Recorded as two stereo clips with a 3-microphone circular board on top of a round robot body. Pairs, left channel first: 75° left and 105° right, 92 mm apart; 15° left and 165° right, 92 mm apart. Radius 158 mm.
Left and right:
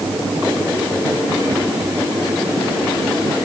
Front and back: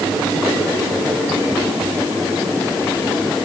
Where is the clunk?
I don't hear a clunk.